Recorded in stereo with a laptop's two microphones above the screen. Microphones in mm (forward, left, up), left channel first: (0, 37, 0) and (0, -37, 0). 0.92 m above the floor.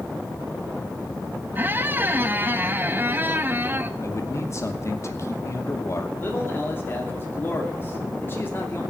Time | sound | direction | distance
1.6 | a squeak | 30° right (ahead or behind) | 0.6 m
4.0 | a man speaking | 40° left (ahead or behind) | 2 m
6.2 | a man speaking | 30° left (ahead or behind) | 2.5 m